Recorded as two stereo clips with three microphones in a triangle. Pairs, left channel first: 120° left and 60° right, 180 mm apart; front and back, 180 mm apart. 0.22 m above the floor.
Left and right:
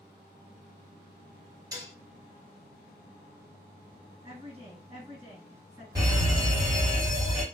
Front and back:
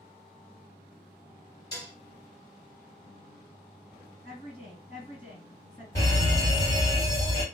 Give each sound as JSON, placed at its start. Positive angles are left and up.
{"t": 1.7, "sound": "dishes clattering", "azimuth_deg": -20, "distance_m": 0.7}
{"t": 4.2, "sound": "a woman speaking", "azimuth_deg": -30, "distance_m": 2.0}
{"t": 6.0, "sound": "a fire alarm", "azimuth_deg": -40, "distance_m": 2.0}